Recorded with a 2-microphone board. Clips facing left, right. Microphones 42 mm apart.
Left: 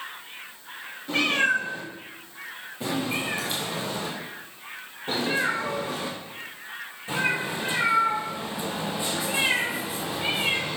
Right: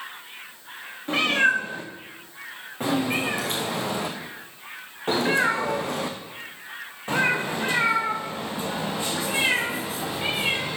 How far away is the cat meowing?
About 3 m.